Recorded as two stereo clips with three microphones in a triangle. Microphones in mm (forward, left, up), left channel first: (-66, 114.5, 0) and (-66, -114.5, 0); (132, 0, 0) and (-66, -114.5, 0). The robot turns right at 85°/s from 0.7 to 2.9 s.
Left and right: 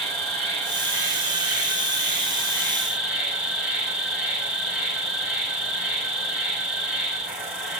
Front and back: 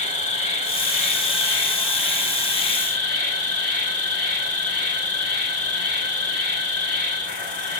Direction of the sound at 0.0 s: Straight ahead.